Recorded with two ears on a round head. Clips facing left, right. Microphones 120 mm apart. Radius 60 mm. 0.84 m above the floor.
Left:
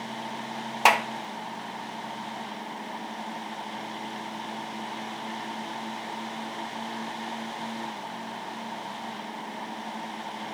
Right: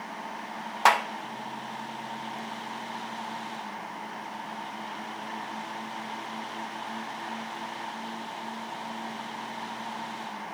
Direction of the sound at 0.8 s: 20° left (ahead or behind).